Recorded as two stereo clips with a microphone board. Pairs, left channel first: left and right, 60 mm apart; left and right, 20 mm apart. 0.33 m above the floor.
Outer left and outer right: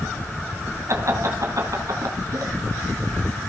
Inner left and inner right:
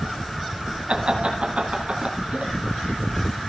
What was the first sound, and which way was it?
Laughter, 55° right (ahead or behind).